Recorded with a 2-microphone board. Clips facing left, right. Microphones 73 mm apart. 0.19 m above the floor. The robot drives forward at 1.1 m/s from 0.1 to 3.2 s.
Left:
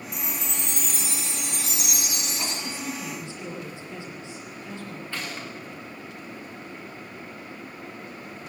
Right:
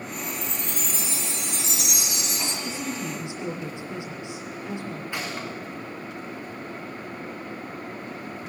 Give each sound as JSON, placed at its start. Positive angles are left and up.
{"t": 0.1, "sound": "a chime", "side_deg": 85, "distance_m": 2.5}
{"t": 2.6, "sound": "a woman speaking", "side_deg": -20, "distance_m": 5.0}
{"t": 5.1, "sound": "a gunshot", "side_deg": -15, "distance_m": 6.0}